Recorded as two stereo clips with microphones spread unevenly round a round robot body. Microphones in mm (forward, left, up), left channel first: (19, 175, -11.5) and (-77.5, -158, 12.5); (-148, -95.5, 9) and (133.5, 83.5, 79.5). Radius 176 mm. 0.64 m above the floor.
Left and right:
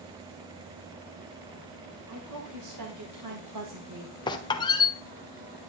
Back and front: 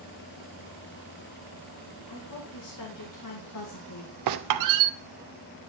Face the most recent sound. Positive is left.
turn(degrees=-5)